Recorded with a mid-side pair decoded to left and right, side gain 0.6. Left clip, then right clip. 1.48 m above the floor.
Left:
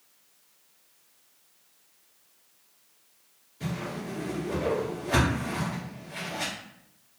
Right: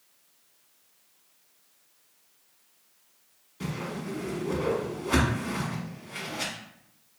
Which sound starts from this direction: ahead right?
A whoosh, at 3.6 s.